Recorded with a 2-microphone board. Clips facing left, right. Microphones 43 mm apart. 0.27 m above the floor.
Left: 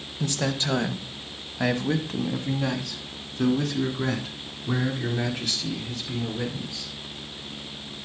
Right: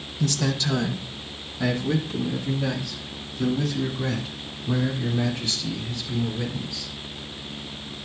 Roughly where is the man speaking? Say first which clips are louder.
Right 2 dB; left.